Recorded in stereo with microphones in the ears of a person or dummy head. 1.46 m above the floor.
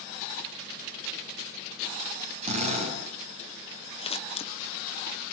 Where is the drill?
45° right (ahead or behind), 7 m.